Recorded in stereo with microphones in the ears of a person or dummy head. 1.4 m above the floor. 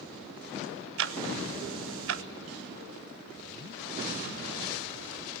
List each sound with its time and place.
1.0 s ticking: 70° right (ahead or behind), 0.6 m